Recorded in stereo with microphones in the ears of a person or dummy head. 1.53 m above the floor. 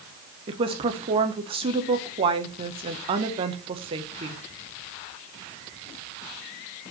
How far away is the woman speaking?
About 0.8 m.